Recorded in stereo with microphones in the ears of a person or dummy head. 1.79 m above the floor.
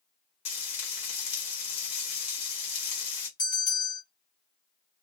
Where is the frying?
30° left (ahead or behind), 1.4 m.